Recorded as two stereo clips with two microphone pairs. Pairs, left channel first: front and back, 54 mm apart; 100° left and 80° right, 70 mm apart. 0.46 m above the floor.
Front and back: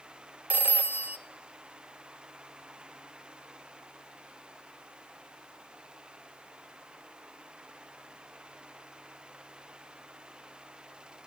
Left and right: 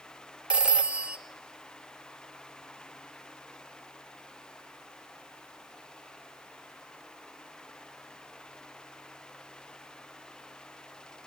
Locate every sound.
0.5 s a phone ringing: 145° right, 0.6 m